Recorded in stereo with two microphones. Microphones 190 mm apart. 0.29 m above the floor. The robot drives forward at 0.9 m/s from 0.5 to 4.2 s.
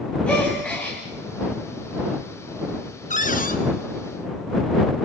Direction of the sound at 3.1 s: 45° left (ahead or behind).